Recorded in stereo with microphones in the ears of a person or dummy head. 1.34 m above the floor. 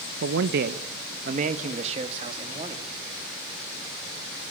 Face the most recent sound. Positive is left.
turn(degrees=-25)  # may be behind; listen again after turning